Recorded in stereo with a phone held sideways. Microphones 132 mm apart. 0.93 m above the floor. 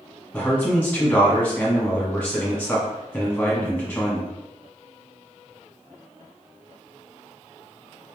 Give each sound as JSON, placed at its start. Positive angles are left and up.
{"t": 0.3, "sound": "a man speaking", "side_deg": 10, "distance_m": 1.1}